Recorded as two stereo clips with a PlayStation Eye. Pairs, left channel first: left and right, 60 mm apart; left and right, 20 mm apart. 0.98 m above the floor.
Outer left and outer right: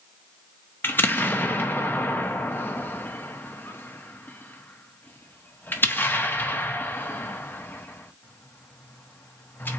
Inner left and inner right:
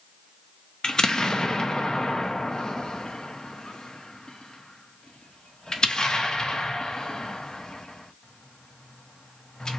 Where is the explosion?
35° left (ahead or behind), 1.1 m.